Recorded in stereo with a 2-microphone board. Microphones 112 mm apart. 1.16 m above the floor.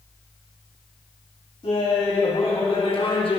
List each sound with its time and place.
1.6 s laughter: 60° left (ahead or behind), 2 m; by 3.4 s 50° left (ahead or behind), 1.1 m